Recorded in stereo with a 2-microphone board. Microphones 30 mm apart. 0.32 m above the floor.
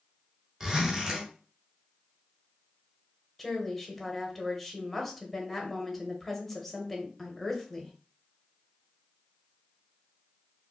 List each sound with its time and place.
0.6 s a zipper: 15° right (ahead or behind), 1.4 m
3.4 s a woman speaking: 10° left (ahead or behind), 1.0 m